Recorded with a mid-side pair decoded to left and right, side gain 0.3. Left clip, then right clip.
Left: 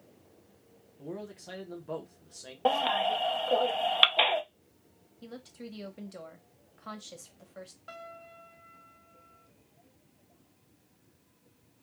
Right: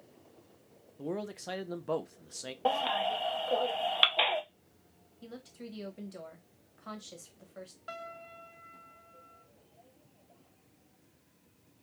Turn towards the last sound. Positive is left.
turn(degrees=-35)